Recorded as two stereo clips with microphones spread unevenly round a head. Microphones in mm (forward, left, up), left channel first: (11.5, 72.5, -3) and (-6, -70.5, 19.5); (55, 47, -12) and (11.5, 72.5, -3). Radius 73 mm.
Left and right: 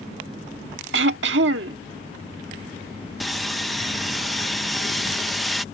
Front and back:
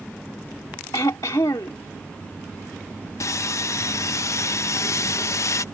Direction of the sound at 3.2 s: 5° right.